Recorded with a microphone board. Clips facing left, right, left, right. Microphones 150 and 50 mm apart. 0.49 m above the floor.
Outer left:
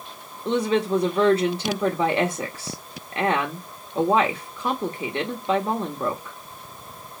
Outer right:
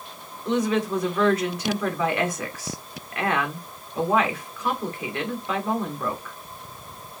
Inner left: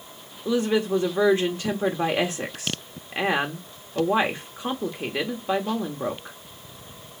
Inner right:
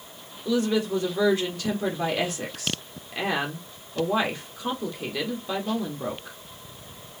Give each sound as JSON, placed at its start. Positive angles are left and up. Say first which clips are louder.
{"t": 0.5, "sound": "a woman speaking", "louder": "outer left 1 dB, inner left 2 dB", "side_deg": 30, "distance_m": 1.3}